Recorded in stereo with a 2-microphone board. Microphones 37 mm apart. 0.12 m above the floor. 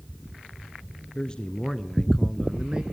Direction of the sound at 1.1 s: 25° left (ahead or behind).